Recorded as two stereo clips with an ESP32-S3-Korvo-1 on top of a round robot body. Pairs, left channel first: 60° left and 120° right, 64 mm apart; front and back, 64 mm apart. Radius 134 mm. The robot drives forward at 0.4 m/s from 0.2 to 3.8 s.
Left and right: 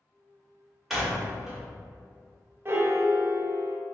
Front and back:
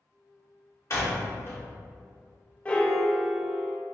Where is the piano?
70° right, 0.7 m; by 3.8 s 115° right, 0.7 m.